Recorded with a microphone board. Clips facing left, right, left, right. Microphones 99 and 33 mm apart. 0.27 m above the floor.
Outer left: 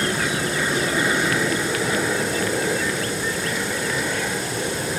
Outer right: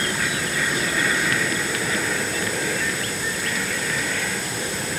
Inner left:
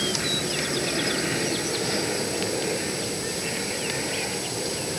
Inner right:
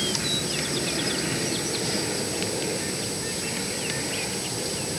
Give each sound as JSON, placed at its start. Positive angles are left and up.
{"t": 0.0, "sound": "an aircraft", "side_deg": 20}